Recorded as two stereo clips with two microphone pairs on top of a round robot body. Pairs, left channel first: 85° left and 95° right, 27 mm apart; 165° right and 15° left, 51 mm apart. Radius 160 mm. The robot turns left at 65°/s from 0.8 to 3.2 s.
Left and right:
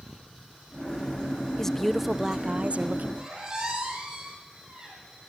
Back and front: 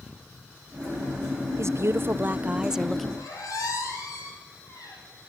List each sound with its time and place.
1.6 s a woman speaking: 15° left, 0.8 m; by 3.1 s 80° right, 0.8 m
3.2 s a squeak: 160° right, 5.5 m